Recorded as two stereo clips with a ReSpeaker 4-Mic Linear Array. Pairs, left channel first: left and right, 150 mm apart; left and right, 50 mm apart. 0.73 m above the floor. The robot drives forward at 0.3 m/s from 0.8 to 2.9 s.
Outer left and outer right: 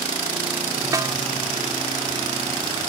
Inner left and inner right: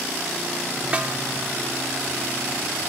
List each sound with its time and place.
0.9 s a snare drum: 25° right (ahead or behind)